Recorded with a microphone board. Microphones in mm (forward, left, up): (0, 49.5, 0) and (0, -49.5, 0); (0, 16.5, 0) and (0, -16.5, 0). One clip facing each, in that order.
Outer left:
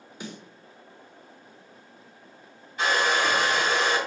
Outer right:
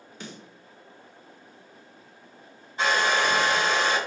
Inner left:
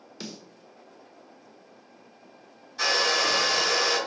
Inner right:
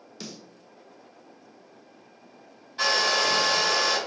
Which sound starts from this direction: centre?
A snare drum, at 0.2 s.